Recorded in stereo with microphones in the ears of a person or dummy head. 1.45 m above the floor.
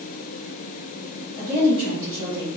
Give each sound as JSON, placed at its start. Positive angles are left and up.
{"t": 1.4, "sound": "a woman speaking", "side_deg": 15, "distance_m": 1.8}